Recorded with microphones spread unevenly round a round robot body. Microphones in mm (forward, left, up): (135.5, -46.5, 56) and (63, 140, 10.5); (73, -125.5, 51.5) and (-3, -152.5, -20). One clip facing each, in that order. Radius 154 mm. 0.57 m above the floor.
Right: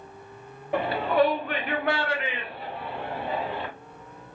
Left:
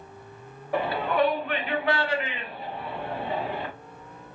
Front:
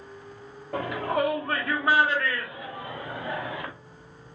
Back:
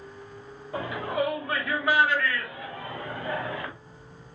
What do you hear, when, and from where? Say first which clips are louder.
0.7 s a shout: right 2 dB, front 2 dB; straight ahead, 1.0 m; by 3.7 s 90° right, 1.8 m